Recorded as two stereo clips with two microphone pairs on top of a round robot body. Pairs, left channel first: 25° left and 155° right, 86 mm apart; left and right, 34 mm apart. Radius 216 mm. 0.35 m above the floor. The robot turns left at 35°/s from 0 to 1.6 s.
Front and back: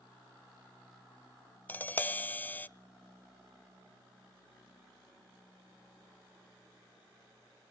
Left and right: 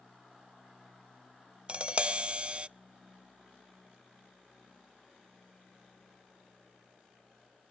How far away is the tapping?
About 0.5 m.